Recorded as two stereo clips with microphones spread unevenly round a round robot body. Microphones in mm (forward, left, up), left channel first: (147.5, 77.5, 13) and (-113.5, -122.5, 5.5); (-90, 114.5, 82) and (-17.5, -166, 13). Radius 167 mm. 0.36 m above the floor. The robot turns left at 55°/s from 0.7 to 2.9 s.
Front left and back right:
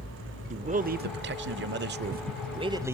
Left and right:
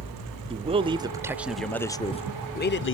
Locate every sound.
0.5 s a man speaking: 95° right, 0.9 m; by 2.9 s 145° left, 0.9 m